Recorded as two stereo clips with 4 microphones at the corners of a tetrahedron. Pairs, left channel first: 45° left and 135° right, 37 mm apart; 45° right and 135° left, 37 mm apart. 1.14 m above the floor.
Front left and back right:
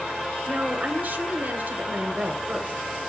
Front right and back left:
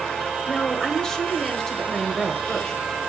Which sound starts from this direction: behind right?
A woman speaking, at 0.5 s.